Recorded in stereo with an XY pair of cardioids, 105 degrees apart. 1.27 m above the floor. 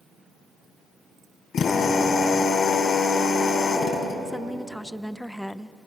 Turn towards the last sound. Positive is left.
turn(degrees=5)